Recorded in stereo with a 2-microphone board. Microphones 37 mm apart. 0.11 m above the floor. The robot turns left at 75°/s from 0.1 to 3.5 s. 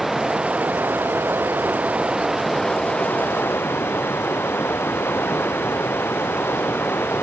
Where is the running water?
5° right; by 7.2 s 100° left.